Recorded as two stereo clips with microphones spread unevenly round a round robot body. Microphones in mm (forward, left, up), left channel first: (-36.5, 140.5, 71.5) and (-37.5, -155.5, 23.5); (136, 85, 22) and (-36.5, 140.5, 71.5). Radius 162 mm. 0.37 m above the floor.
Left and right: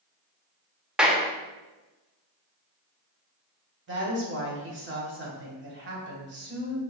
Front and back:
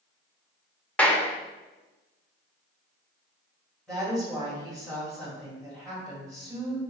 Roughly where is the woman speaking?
Right.